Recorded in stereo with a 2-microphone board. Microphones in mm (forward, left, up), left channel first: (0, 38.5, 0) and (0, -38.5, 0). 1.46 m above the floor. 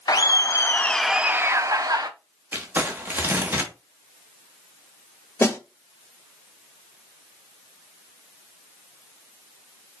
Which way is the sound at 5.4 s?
30° left (ahead or behind).